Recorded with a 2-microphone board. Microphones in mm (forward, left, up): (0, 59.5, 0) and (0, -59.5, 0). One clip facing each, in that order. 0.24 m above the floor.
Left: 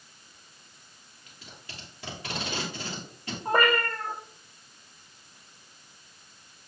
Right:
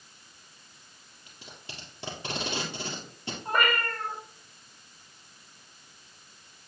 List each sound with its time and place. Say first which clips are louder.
1.3 s tape being pulled: right 1 dB; 30° right (ahead or behind), 3 m
3.5 s a cat meowing: left 4 dB; 30° left (ahead or behind), 1.5 m